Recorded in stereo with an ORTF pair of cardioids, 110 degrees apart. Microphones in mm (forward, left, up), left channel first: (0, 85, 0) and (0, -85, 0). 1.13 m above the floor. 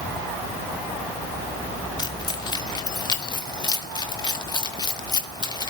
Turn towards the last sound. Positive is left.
turn(degrees=25)